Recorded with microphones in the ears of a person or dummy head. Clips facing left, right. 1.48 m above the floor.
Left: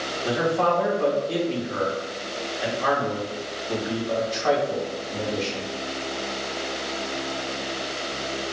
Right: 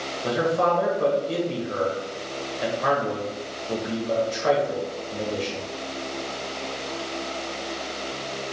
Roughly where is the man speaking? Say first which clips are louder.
Even; right.